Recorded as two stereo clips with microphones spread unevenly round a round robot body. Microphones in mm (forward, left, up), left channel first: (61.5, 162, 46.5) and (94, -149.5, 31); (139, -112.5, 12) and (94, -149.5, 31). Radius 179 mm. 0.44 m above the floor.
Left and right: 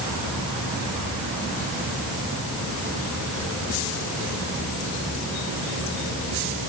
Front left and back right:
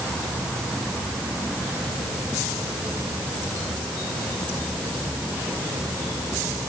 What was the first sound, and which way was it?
Only background noise.